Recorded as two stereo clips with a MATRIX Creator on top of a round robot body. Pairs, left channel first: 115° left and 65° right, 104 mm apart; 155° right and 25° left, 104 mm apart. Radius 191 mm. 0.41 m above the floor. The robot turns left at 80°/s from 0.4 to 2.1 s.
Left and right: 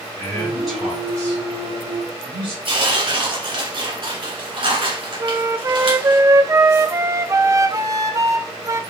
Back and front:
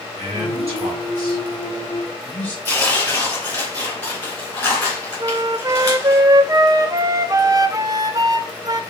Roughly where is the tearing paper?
Right.